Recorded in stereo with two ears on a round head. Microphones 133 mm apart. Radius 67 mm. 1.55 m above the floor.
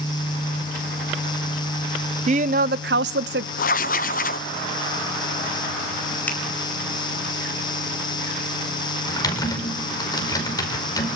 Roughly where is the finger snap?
Centre.